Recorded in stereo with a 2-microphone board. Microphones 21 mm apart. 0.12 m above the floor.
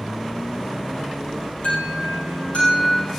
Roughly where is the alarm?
Left.